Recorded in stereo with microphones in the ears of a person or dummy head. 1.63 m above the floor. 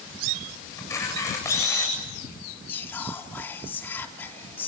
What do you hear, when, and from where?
0.8 s a camera shutter: 15° left (ahead or behind), 7.5 m
2.7 s whispering: 10° left (ahead or behind), 3.5 m